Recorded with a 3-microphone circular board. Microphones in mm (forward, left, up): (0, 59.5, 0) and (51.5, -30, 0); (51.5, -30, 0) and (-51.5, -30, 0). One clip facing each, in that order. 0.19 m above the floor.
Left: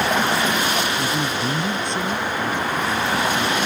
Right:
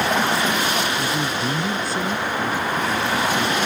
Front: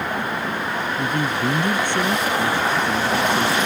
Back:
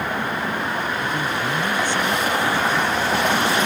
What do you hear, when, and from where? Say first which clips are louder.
1.0 s a man speaking: even, front 2 dB; 35° left; by 3.6 s 15° left